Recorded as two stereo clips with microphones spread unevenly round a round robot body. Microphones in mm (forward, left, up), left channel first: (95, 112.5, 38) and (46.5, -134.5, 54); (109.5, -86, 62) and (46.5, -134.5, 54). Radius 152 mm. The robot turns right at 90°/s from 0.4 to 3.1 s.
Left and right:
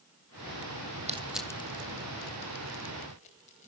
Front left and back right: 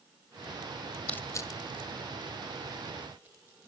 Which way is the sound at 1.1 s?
35° right.